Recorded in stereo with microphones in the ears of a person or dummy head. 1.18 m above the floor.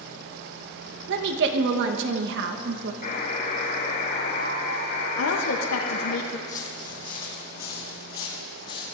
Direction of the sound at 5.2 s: 80° left.